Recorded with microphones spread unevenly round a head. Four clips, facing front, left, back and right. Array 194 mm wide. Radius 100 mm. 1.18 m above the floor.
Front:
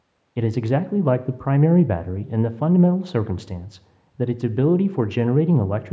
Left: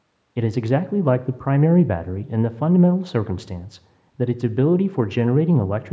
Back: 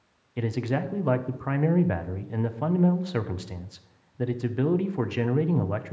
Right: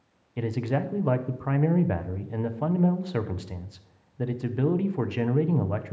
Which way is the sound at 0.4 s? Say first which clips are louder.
Left 7 dB, front 6 dB; 60° left.